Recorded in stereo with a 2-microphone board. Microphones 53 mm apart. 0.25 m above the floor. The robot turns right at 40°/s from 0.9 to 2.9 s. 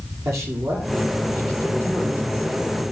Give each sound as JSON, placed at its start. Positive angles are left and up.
{"t": 0.2, "sound": "a man speaking", "azimuth_deg": -95, "distance_m": 7.0}